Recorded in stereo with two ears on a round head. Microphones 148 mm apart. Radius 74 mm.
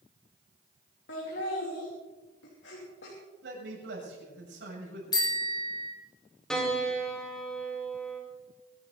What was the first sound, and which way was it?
Laughter, 75° left (ahead or behind).